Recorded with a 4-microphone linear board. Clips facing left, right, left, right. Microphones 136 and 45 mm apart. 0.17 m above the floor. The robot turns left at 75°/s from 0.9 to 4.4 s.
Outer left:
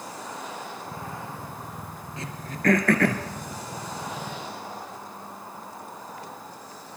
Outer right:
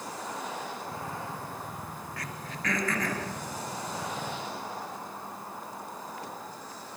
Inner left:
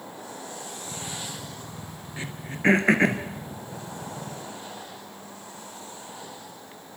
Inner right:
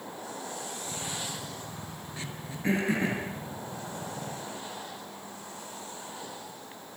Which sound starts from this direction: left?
Throat clearing, at 2.2 s.